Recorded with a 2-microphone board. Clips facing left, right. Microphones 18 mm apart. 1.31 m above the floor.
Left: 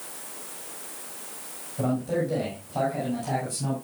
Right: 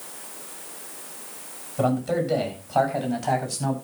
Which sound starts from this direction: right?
A man speaking, at 1.8 s.